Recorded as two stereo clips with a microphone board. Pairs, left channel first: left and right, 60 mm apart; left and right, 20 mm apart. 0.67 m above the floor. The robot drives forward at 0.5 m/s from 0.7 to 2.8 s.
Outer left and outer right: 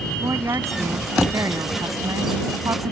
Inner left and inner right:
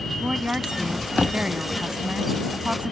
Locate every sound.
0.2 s a woman speaking: 60° right (ahead or behind); by 2.9 s 70° right (ahead or behind)